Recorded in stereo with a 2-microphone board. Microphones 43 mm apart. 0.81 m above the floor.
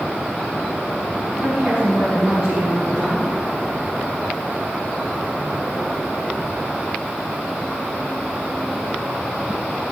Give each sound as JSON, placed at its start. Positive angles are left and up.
{"t": 1.4, "sound": "a woman speaking", "side_deg": -10, "distance_m": 5.0}